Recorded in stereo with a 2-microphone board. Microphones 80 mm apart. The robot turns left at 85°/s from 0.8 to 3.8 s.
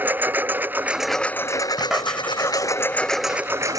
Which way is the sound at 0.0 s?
155° right.